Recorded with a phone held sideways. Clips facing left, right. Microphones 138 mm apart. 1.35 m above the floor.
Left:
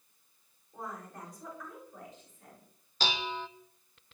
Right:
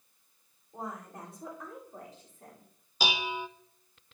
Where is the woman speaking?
20° right (ahead or behind), 4.5 m; by 2.7 s 40° right (ahead or behind), 4 m.